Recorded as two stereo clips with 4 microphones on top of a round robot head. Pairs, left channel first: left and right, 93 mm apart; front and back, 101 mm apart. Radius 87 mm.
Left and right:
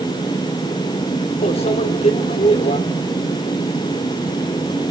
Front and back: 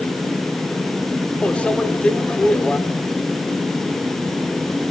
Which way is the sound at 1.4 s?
75° left.